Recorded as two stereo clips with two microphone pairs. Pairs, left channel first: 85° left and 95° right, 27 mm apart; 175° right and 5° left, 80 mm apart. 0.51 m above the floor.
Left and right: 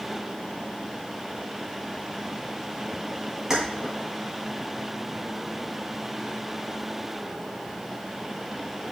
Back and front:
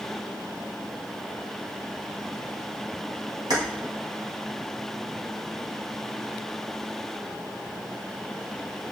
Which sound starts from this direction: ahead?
Keys jangling, at 3.5 s.